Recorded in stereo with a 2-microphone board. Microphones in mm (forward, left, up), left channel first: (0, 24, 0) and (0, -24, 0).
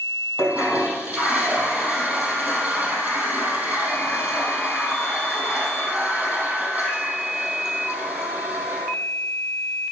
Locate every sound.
0.4 s a toilet flushing: 35° right (ahead or behind), 5 m